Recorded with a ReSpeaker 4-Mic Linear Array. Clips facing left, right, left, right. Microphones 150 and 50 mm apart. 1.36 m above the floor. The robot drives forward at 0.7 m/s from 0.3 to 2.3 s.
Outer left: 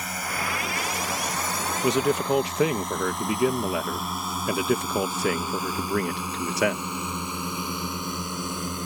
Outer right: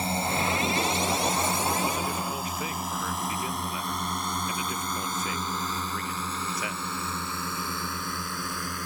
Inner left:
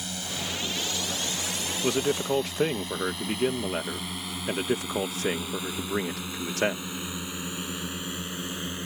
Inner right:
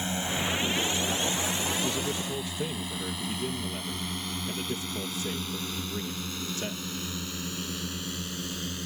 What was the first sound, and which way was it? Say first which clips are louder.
A drone: outer right 4 dB, inner right 4 dB; 30° right (ahead or behind).